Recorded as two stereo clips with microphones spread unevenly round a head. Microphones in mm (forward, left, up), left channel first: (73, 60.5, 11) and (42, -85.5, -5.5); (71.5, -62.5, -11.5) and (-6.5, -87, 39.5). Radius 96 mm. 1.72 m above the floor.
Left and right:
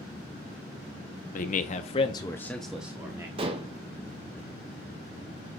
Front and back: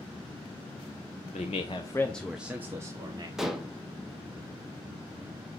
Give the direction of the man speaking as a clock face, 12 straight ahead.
9 o'clock.